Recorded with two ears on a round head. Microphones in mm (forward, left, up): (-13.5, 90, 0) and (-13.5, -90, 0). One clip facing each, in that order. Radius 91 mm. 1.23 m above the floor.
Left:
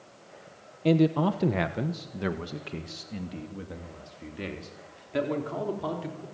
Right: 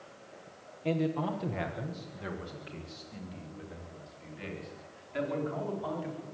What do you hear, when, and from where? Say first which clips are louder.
0.8 s a man speaking: left 8 dB; 50° left (ahead or behind), 1.1 m; by 6.2 s 55° left (ahead or behind), 4.5 m